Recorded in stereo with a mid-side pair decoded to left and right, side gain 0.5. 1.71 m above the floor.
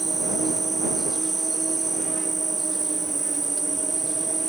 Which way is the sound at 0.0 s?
20° right.